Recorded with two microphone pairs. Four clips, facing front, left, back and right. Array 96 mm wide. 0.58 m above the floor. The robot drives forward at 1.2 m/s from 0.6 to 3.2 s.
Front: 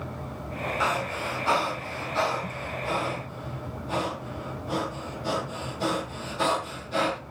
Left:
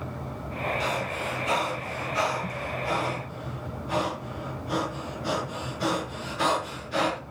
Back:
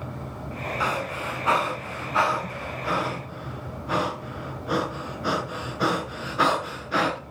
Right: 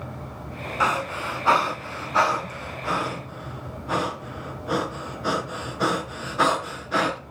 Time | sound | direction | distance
0.8 | breathing | 85° right | 3 m